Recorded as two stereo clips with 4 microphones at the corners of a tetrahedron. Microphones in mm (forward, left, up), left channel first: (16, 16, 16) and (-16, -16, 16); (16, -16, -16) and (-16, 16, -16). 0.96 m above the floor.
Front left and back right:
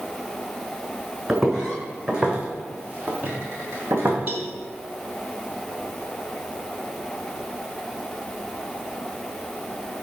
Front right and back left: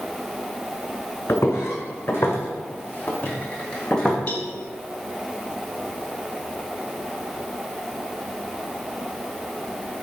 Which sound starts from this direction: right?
A cowbell, at 4.3 s.